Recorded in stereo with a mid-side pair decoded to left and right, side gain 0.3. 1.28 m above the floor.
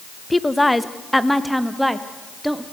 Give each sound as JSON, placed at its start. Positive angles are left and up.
{"t": 0.3, "sound": "a woman speaking", "azimuth_deg": 20, "distance_m": 1.4}